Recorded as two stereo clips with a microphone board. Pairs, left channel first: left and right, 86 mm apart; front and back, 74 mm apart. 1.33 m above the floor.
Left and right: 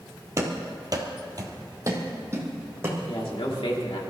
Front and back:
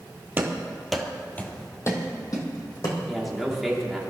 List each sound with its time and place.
0.4 s running footsteps: 130° right, 1.9 m; by 3.0 s 30° right, 4 m
3.1 s a man speaking: 90° left, 3 m